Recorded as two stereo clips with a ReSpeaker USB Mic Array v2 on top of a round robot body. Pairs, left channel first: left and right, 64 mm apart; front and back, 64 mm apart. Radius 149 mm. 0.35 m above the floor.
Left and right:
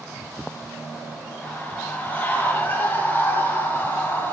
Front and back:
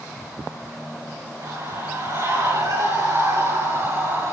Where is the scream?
155° left, 8 m; by 4.3 s 145° left, 10.5 m.